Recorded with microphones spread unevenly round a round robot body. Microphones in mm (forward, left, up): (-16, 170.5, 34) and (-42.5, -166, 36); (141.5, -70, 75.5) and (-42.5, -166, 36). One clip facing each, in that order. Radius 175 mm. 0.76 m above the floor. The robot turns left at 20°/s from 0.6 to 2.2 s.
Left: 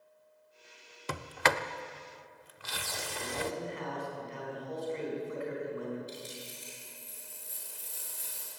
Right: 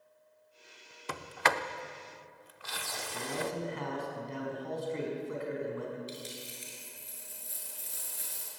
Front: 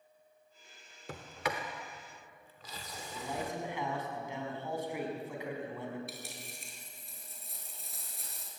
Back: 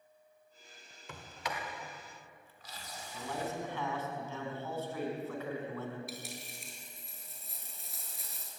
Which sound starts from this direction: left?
A sliding door, at 1.1 s.